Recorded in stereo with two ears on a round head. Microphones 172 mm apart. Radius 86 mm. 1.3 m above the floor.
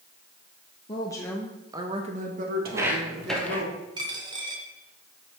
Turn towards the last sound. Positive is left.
turn(degrees=-25)  # may be behind; listen again after turning